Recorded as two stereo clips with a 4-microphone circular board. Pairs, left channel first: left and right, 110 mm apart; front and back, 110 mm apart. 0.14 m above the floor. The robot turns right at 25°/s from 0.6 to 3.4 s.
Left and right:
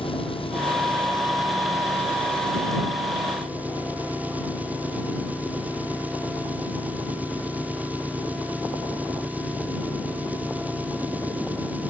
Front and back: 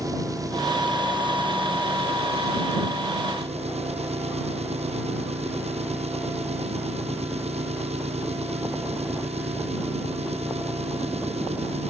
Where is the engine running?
125° left; by 11.9 s 165° right.